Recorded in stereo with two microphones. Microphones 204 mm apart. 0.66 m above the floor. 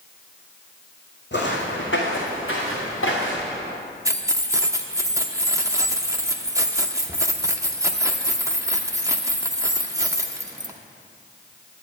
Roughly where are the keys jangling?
Centre.